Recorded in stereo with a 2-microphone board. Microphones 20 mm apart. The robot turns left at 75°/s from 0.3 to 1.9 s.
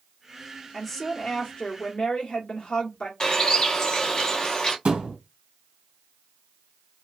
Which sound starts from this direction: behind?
A woman speaking, at 0.7 s.